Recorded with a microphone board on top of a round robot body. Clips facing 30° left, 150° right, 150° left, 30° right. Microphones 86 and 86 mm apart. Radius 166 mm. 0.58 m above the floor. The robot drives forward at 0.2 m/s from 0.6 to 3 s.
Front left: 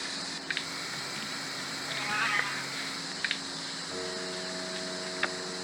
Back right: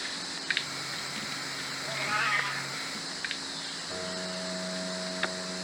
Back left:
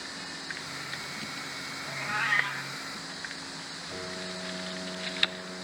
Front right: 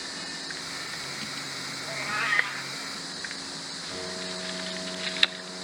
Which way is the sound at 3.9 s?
110° right.